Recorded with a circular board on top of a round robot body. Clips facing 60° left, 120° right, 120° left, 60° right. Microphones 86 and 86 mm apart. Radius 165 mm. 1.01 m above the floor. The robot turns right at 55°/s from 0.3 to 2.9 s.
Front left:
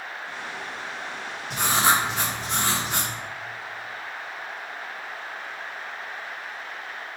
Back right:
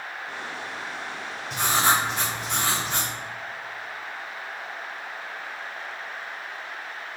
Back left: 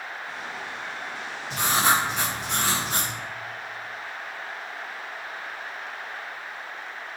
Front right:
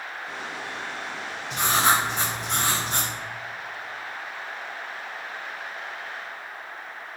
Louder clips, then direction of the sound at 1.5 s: Front left 1 dB, front right 1 dB; 60° left.